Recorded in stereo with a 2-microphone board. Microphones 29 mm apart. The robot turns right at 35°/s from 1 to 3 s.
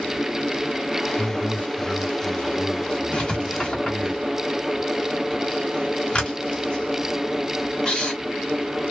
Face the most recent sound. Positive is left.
turn(degrees=35)  # may be behind; listen again after turning